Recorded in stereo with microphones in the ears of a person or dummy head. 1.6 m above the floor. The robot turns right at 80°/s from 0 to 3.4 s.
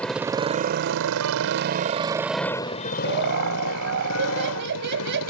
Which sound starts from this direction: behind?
A motorcycle, at 0.0 s.